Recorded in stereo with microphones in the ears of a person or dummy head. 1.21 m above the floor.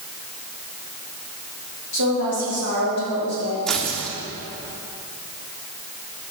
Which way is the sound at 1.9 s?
80° left.